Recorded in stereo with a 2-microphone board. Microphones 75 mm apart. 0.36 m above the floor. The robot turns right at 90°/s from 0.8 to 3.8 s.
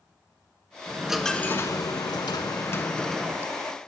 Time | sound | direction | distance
0.9 | a dropped coin | 30° right | 0.5 m